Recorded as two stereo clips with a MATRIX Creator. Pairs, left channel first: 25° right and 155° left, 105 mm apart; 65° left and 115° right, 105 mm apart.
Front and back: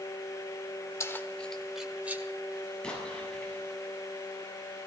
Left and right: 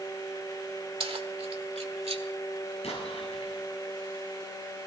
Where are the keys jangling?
85° right, 1.5 m; by 2.2 s 130° right, 2 m.